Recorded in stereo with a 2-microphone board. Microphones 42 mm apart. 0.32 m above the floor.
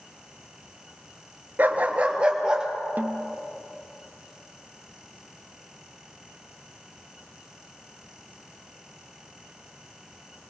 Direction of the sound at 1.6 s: 45° right (ahead or behind).